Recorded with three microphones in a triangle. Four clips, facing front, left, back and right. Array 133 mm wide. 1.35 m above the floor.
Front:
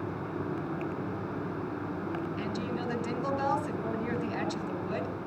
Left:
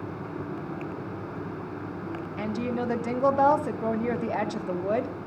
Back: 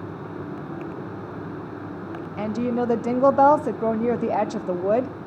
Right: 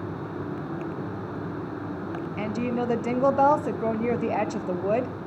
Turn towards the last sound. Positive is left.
turn(degrees=-175)